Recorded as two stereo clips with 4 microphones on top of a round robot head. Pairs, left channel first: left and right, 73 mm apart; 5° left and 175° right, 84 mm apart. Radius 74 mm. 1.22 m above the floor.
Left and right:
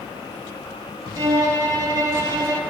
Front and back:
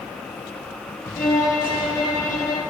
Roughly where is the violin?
Ahead right.